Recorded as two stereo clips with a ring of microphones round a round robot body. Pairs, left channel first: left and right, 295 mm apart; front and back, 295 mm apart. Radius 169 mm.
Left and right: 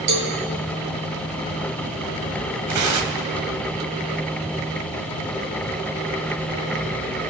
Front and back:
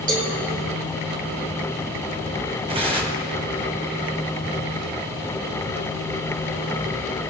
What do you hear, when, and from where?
0.1 s a cowbell: 115° right, 2 m
2.7 s tearing paper: 110° right, 1.6 m